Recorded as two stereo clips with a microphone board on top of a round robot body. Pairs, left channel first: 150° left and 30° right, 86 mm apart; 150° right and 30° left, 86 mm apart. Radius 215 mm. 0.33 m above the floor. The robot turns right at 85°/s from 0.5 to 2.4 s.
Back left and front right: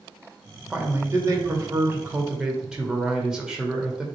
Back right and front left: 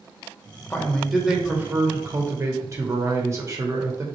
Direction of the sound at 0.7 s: 95° right.